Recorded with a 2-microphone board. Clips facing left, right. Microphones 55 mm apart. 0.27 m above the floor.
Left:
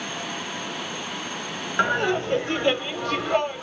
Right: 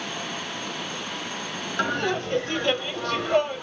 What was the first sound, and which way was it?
Laughter, 20° left (ahead or behind).